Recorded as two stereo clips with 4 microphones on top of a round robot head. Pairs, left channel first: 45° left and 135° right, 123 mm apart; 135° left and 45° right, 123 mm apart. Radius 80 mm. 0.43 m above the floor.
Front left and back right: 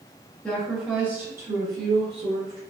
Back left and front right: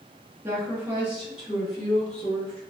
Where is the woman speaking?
20° right, 1.2 m; by 2.6 s 150° right, 1.7 m.